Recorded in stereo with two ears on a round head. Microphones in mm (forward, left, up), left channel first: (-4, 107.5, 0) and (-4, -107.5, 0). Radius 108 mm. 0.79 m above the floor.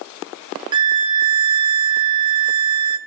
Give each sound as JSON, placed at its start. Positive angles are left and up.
{"t": 0.7, "sound": "a violin", "side_deg": -20, "distance_m": 0.7}